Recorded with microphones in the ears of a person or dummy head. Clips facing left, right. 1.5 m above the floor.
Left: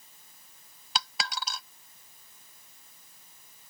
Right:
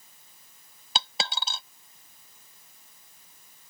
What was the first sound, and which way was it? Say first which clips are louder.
A dropped coin: right 2 dB; 30° right (ahead or behind).